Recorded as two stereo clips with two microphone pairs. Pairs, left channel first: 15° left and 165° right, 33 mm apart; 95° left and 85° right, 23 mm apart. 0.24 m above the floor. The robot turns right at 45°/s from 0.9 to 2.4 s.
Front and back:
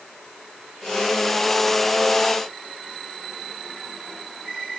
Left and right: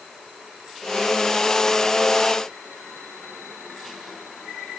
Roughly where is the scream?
I don't hear a scream.